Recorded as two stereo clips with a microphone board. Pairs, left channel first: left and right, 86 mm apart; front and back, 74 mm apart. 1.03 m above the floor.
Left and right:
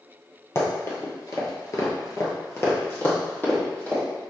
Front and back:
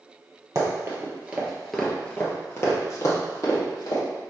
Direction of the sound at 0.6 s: 140° left.